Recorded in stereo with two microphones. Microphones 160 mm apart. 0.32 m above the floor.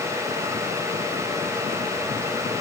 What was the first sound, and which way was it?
Only background noise.